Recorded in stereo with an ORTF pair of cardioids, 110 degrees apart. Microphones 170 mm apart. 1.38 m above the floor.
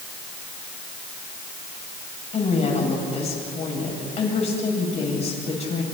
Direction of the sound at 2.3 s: 40° left.